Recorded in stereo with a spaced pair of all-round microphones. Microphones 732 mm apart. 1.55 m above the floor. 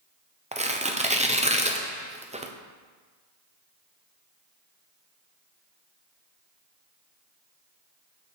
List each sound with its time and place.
0.5 s tearing paper: 10° right (ahead or behind), 0.6 m